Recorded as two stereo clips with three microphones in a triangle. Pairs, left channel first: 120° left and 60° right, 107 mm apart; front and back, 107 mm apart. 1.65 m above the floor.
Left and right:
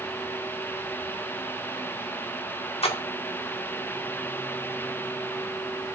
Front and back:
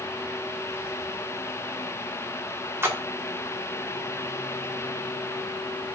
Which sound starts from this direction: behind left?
A splash, at 2.8 s.